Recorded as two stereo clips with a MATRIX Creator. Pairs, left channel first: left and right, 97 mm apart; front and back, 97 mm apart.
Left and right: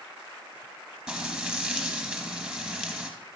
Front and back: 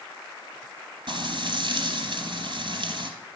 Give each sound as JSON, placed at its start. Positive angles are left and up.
{"t": 1.1, "sound": "frying", "azimuth_deg": -170, "distance_m": 2.5}